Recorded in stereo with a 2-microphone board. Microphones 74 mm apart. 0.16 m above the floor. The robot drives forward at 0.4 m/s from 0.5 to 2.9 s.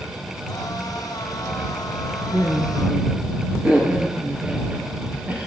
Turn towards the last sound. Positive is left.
turn(degrees=-25)  # may be behind; listen again after turning